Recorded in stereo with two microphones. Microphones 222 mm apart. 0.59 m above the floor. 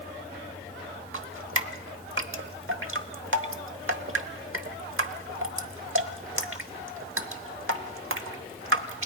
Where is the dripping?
65° right (ahead or behind), 0.9 m.